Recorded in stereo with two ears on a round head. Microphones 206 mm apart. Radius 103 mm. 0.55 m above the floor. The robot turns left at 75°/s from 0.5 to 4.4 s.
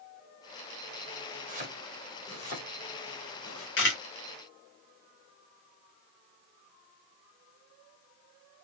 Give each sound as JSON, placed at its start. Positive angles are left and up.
{"t": 1.5, "sound": "chopping", "side_deg": -40, "distance_m": 3.0}
{"t": 3.8, "sound": "a camera shutter", "side_deg": 55, "distance_m": 2.5}